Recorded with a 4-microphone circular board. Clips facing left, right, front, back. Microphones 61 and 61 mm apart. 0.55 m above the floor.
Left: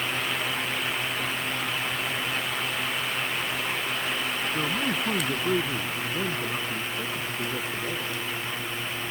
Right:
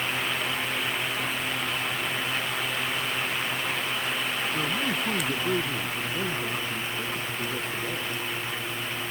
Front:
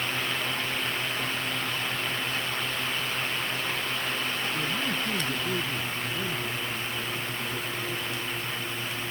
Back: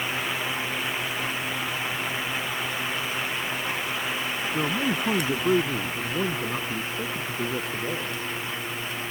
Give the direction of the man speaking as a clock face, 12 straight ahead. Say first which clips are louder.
Left 1 dB, back 4 dB; 6 o'clock.